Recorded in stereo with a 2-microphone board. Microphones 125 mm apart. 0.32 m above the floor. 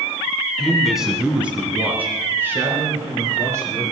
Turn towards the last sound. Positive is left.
turn(degrees=-25)  # may be behind; listen again after turning